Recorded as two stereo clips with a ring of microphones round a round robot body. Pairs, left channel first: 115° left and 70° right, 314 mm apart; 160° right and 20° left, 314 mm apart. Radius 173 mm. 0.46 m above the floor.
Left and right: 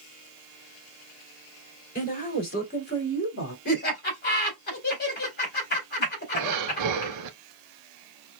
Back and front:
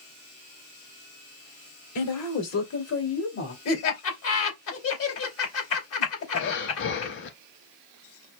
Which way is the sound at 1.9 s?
175° left.